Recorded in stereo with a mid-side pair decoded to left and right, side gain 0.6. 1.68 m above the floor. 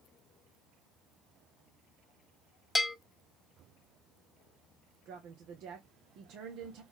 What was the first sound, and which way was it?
A bell, 15° left.